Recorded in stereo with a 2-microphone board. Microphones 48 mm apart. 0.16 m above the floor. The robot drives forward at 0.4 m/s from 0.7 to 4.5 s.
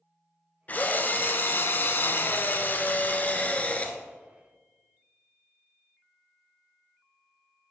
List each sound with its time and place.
0.7 s a drill: 35° left (ahead or behind), 0.8 m; by 4.0 s 25° left (ahead or behind), 1.1 m